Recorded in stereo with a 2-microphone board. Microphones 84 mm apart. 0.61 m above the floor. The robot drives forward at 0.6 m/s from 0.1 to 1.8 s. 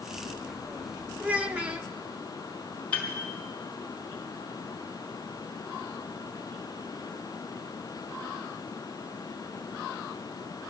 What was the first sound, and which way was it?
A child speaking, 20° right (ahead or behind).